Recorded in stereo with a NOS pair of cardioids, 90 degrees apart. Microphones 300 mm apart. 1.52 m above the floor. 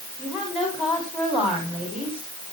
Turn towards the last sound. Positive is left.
turn(degrees=-5)